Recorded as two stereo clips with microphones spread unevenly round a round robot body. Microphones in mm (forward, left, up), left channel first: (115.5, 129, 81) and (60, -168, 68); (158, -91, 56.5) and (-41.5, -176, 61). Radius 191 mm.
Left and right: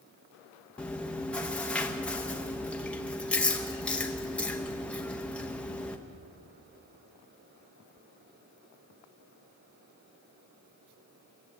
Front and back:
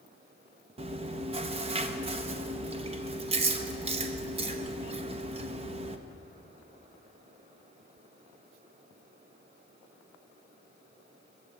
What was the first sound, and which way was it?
Chewing, 165° left.